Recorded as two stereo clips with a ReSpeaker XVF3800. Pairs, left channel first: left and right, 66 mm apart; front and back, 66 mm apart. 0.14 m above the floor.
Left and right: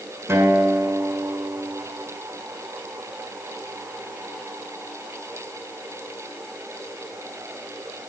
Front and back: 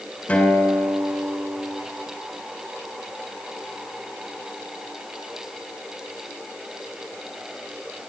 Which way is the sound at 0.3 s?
55° right.